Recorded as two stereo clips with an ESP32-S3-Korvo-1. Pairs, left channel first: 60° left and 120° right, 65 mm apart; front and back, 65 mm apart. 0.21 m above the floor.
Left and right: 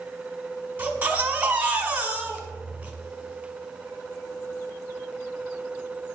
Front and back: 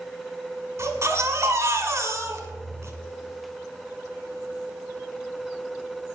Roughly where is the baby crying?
Behind.